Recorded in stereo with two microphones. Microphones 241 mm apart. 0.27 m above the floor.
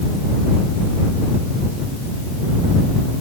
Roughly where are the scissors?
I don't hear scissors.